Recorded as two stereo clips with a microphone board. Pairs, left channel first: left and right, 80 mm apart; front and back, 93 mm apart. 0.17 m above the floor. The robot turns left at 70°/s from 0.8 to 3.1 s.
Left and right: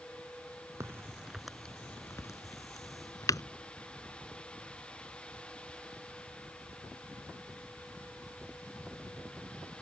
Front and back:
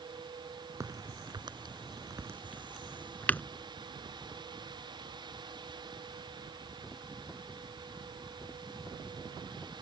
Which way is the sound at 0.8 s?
130° right.